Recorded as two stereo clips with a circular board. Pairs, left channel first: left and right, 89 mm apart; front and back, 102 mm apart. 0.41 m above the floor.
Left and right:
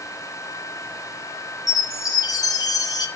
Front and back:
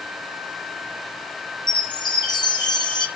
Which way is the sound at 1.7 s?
45° left.